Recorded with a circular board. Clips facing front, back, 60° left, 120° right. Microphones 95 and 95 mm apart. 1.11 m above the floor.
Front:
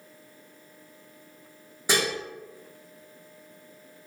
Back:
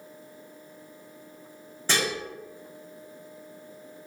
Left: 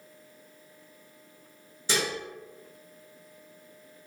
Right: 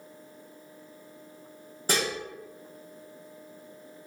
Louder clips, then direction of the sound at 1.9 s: Front 1 dB, right 1 dB; 80° right.